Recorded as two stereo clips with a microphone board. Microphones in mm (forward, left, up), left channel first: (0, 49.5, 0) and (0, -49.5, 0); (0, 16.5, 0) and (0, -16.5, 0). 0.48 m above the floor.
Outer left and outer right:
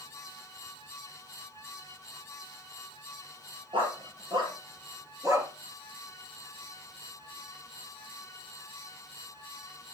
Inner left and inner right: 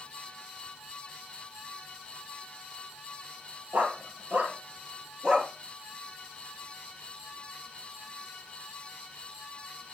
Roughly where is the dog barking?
Right.